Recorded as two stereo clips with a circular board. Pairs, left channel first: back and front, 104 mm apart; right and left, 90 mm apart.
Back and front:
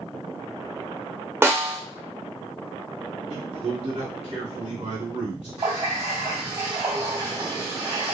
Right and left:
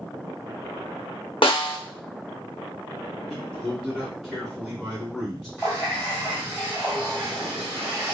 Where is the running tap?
20° right, 1.9 m.